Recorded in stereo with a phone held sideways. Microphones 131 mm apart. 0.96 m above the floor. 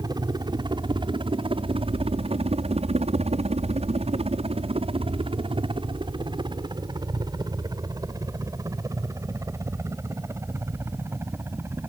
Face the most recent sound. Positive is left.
turn(degrees=-20)  # may be behind; listen again after turning